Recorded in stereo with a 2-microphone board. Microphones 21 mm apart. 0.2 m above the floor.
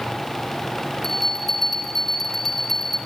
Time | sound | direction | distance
1.0 | a bell | 15° left (ahead or behind) | 1.3 m